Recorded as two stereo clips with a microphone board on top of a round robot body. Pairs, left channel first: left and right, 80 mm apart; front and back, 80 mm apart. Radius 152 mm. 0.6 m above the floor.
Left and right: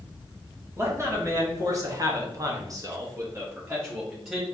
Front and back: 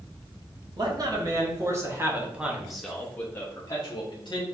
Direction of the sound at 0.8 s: 145° right.